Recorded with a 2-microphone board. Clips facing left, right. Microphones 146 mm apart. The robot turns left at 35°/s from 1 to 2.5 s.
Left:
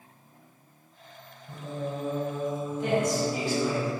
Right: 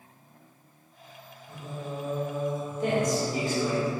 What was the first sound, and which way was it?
Singing, 50° left.